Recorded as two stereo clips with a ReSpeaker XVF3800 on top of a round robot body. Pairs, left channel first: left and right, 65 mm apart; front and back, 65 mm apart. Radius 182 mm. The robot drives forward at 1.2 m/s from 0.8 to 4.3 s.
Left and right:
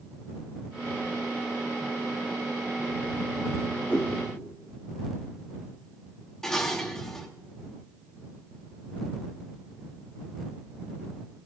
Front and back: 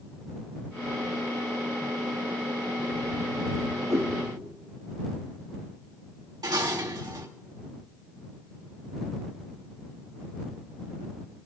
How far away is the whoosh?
About 5 m.